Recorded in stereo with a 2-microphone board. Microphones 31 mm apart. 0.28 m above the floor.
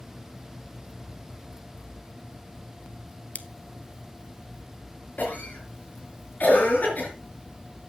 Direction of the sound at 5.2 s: 60° left (ahead or behind).